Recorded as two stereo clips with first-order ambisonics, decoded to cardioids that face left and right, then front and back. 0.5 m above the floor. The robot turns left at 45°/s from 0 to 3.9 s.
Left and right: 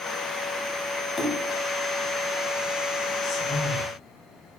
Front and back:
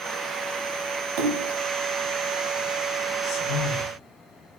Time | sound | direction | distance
1.2 | a splash | 170° left | 1.6 m
3.2 | a man speaking | 20° left | 5.5 m